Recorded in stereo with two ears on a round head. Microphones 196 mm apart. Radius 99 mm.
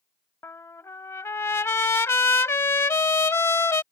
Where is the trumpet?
10° left (ahead or behind).